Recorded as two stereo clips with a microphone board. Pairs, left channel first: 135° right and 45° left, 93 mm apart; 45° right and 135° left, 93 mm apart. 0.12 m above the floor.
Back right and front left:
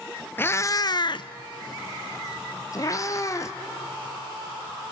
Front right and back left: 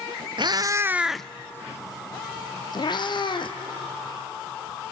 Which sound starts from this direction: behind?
A cat meowing, at 0.4 s.